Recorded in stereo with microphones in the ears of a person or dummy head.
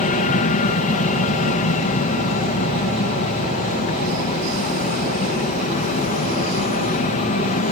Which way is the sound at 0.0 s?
40° left (ahead or behind).